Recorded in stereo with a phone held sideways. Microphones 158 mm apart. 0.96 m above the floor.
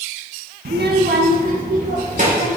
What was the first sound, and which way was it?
A child speaking, 80° right.